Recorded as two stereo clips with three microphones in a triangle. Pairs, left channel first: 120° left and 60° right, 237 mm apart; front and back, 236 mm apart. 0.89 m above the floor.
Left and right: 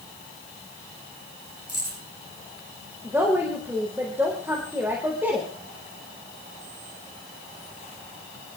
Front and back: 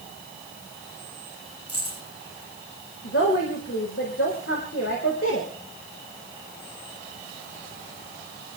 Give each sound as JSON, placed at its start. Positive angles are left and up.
{"t": 1.7, "sound": "keys jangling", "azimuth_deg": -15, "distance_m": 8.5}
{"t": 3.0, "sound": "a woman speaking", "azimuth_deg": 20, "distance_m": 4.0}